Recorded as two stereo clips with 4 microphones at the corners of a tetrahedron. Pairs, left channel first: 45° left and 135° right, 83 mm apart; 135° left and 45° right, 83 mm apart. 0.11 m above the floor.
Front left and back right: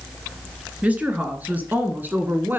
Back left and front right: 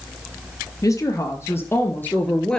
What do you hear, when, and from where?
0.8 s a woman speaking: 160° left, 2 m; by 2.6 s 155° right, 1.5 m